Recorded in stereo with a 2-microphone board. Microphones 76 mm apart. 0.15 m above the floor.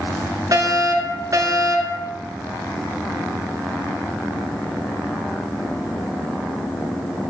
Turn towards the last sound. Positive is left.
turn(degrees=-45)  # may be behind; listen again after turning